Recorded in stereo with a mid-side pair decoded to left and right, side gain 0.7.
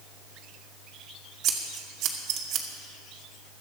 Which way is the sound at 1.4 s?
55° right.